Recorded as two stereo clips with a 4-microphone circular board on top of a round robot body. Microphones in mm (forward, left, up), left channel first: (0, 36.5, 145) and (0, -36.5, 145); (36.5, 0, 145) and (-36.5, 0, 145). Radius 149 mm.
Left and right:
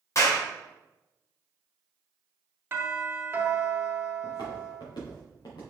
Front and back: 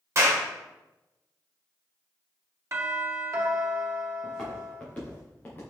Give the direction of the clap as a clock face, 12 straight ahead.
8 o'clock.